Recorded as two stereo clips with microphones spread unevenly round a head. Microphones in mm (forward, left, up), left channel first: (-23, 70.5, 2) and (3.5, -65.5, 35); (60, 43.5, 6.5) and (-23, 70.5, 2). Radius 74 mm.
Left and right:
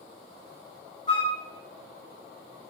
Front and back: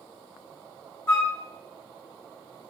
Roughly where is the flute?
Ahead left.